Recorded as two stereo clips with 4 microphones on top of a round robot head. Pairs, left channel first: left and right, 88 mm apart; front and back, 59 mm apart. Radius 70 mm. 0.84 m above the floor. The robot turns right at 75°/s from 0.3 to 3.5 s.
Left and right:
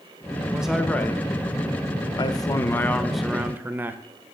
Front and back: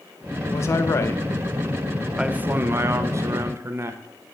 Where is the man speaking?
20° right, 0.6 m; by 4.0 s 155° right, 0.6 m.